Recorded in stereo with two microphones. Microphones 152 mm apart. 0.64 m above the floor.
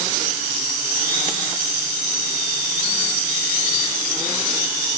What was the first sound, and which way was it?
Only background noise.